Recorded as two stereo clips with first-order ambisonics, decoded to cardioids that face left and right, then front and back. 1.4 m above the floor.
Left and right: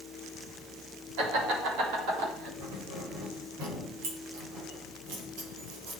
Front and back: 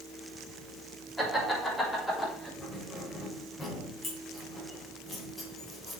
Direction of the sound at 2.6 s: 75° right.